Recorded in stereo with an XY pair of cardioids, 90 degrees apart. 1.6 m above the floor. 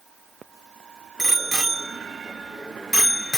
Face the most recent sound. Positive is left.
turn(degrees=20)